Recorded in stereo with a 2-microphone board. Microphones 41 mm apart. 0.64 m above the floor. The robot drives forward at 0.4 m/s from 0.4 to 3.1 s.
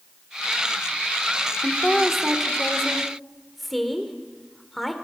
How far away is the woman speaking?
About 2.0 m.